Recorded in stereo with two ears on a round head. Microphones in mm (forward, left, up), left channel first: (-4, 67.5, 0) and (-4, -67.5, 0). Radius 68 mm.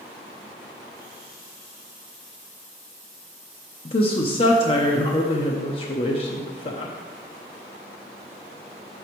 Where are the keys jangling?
I don't hear keys jangling.